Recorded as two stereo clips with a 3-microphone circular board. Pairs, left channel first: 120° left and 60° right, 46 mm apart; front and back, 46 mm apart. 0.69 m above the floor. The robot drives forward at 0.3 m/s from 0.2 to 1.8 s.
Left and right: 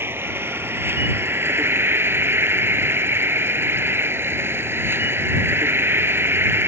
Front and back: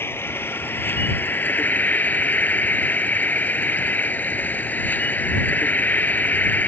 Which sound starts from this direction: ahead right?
An insect, at 0.0 s.